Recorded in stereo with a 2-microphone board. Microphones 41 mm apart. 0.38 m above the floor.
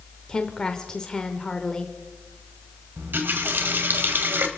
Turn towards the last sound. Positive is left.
turn(degrees=-60)  # may be behind; listen again after turning